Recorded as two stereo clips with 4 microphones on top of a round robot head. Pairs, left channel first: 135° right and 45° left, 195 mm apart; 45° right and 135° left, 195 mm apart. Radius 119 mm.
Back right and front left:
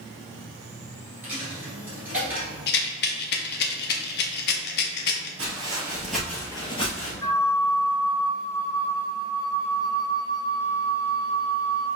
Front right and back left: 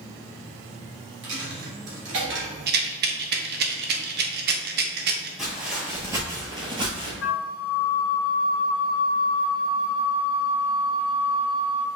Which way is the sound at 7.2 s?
65° right.